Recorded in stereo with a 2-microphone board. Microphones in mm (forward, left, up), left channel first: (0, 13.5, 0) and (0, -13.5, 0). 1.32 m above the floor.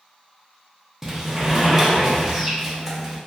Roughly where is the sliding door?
Centre.